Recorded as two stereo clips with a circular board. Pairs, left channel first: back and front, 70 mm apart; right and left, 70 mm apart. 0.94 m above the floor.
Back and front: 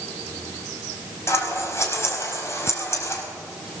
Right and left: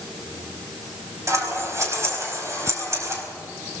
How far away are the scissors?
About 4.5 m.